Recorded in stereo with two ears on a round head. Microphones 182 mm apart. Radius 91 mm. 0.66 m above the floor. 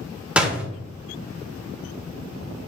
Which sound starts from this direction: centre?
A door slam, at 0.4 s.